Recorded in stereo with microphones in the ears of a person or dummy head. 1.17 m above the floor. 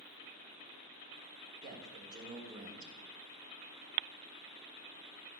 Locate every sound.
1.6 s a man speaking: 50° right (ahead or behind), 3.5 m